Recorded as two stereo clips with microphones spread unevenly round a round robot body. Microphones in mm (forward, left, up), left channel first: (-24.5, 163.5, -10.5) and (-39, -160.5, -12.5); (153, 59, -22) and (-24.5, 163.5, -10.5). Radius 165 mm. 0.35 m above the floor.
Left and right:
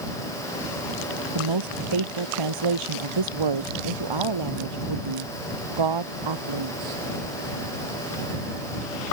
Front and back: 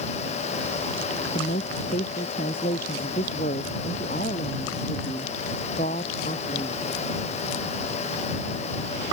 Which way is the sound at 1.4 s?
95° right.